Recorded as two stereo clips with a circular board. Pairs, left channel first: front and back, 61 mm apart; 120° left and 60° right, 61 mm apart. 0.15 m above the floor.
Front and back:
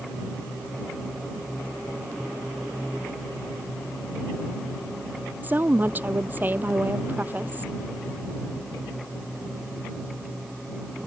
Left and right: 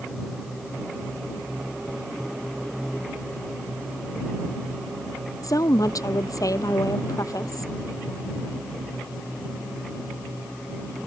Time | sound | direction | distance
5.4 | a woman speaking | 120° left | ?